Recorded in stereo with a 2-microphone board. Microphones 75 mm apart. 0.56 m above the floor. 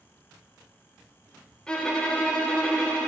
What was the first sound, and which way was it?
A violin, 10° left (ahead or behind).